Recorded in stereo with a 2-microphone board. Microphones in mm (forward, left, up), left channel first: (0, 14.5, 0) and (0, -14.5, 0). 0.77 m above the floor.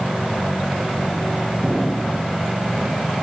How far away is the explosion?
About 5.5 m.